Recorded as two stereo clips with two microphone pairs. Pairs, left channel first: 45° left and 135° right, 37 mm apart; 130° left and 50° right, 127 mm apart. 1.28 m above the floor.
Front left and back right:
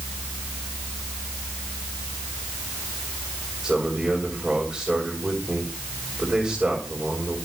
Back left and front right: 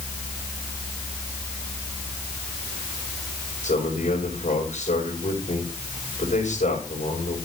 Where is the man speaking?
150° left, 5.5 m.